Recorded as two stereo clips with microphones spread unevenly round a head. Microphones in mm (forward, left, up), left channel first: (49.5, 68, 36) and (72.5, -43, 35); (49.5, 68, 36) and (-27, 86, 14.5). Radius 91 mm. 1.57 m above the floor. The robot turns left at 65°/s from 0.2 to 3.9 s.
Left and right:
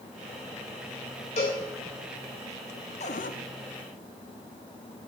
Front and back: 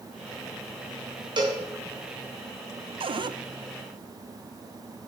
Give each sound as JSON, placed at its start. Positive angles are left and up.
{"t": 1.4, "sound": "a cowbell", "azimuth_deg": 150, "distance_m": 3.0}
{"t": 3.0, "sound": "a cupboard door", "azimuth_deg": 155, "distance_m": 0.6}